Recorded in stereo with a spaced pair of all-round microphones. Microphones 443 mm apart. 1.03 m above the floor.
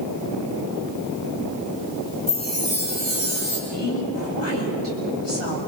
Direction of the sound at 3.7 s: 80° left.